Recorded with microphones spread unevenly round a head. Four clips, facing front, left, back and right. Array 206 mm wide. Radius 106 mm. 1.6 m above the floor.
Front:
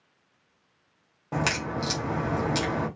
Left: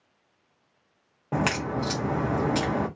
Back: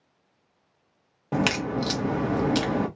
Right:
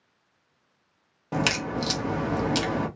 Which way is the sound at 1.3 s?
150° left.